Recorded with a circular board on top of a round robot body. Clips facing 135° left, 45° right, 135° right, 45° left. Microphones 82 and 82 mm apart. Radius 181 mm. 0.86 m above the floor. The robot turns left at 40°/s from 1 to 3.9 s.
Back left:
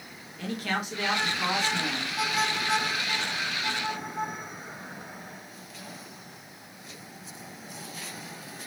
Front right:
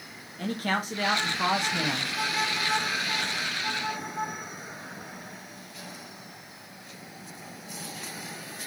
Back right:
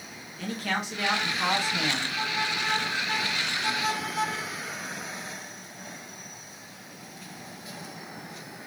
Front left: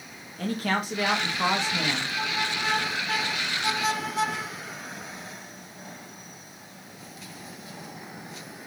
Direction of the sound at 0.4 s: Straight ahead.